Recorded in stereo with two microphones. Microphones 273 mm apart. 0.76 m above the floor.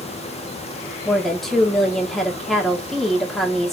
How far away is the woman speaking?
About 2.0 m.